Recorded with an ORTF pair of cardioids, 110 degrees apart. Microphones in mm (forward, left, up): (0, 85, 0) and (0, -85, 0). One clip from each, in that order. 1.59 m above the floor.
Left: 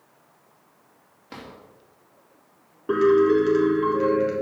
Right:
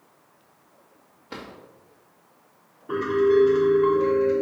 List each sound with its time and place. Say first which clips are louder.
1.3 s a drawer: right 2 dB; 5° left, 2.5 m
2.9 s a piano: left 3 dB; 65° left, 3 m